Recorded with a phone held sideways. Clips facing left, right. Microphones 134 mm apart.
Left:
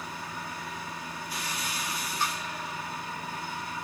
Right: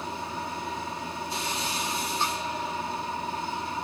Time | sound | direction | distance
0.0 | a machine running | 25° right (ahead or behind) | 1.5 m